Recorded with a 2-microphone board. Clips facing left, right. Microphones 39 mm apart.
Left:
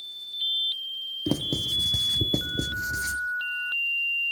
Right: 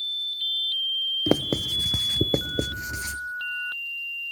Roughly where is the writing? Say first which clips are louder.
Right 1 dB; right.